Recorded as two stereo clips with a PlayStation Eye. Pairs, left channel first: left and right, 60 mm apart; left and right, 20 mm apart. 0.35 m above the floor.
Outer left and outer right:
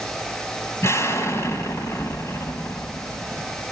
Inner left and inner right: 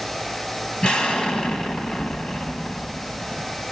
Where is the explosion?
50° left (ahead or behind), 1.8 m.